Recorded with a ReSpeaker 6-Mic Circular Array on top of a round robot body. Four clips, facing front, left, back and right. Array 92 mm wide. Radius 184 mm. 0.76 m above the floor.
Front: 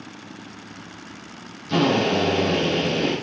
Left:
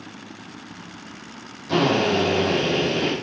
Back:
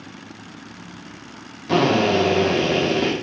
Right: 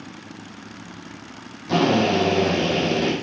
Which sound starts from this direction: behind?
A drill, at 1.7 s.